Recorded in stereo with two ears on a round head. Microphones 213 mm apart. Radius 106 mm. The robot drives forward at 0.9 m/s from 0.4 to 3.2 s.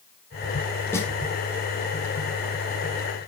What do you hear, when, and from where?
0.9 s a snare drum: 10° left (ahead or behind), 1.1 m